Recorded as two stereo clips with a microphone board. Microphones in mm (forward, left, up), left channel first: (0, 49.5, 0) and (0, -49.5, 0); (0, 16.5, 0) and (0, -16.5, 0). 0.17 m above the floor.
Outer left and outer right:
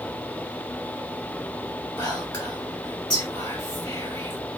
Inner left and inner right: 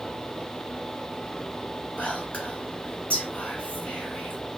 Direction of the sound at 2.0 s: 45° left (ahead or behind).